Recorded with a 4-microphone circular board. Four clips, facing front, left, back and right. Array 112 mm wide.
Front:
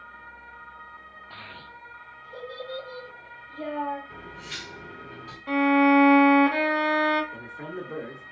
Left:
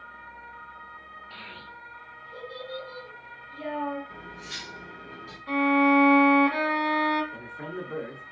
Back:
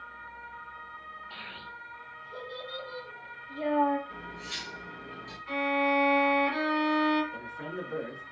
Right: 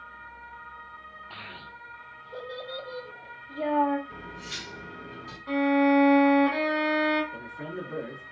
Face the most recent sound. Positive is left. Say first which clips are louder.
# even, front 1 dB
turn(degrees=0)